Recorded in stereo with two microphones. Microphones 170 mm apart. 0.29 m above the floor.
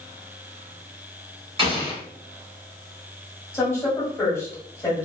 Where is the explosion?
35° right (ahead or behind), 1.1 m.